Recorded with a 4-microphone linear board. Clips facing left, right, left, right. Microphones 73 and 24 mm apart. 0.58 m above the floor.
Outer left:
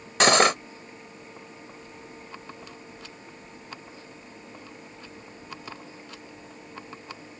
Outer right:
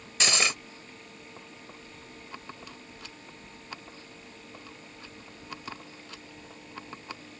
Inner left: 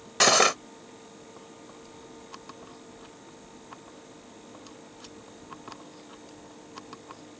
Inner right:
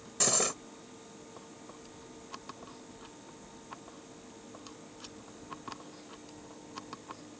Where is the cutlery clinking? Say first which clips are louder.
Outer left 10 dB, inner left 11 dB; 55° left (ahead or behind).